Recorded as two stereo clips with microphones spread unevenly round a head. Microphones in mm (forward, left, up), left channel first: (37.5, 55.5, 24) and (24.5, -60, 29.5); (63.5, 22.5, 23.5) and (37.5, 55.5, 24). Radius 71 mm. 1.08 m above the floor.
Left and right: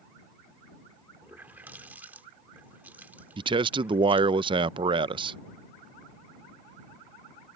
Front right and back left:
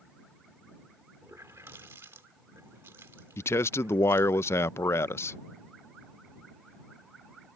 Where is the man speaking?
50° right.